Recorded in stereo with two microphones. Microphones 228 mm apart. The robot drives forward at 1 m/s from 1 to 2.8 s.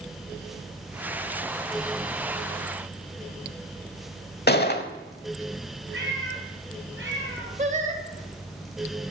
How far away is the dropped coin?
No dropped coin in this recording.